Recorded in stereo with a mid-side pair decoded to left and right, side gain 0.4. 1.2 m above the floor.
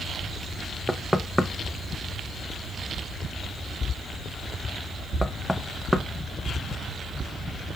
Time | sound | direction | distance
0.9 | knocking | 10° left | 0.5 m